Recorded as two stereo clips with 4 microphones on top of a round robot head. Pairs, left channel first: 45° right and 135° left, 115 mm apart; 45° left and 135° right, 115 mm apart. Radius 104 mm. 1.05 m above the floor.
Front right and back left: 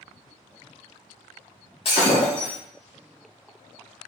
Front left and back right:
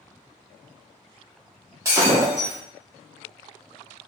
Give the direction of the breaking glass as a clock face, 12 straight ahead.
2 o'clock.